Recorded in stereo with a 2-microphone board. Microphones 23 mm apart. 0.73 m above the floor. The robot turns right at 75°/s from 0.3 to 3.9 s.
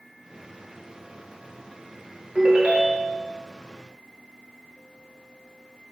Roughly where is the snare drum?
I don't hear a snare drum.